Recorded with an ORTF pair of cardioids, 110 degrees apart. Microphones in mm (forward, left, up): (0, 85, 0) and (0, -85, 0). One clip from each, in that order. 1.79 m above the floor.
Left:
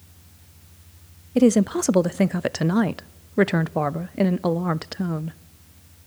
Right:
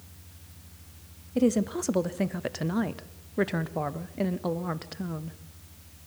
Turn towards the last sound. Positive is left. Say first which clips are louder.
# left 7 dB
turn(degrees=40)